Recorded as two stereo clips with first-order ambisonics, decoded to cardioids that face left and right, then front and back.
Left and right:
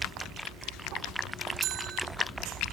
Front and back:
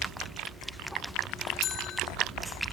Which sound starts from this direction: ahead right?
A bell, at 1.6 s.